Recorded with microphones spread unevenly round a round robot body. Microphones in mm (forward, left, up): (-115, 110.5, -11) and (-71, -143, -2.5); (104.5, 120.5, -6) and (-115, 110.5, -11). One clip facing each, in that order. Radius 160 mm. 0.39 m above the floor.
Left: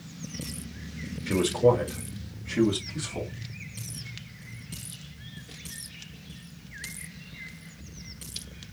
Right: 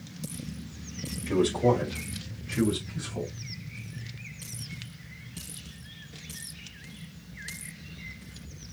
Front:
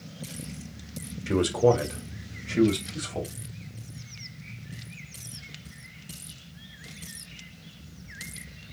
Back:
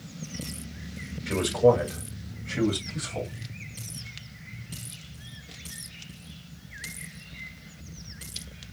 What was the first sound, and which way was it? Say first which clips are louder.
A man speaking: left 2 dB, back 1 dB; 30° left.